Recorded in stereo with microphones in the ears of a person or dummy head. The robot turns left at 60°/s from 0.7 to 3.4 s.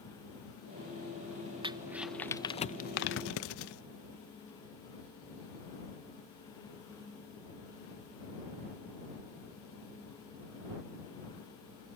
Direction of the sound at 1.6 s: 25° right (ahead or behind).